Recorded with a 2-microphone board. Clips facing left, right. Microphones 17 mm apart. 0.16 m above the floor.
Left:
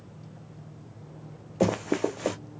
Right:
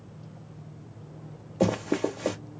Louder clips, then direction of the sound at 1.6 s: Even; 15° left (ahead or behind).